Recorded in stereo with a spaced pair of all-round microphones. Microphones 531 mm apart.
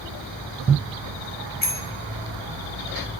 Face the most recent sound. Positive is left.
turn(degrees=65)  # may be behind; listen again after turning